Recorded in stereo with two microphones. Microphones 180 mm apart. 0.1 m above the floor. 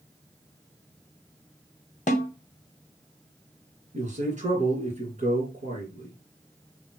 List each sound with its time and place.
2.1 s a snare drum: 45° left (ahead or behind), 0.7 m
3.9 s a man speaking: 45° right (ahead or behind), 2 m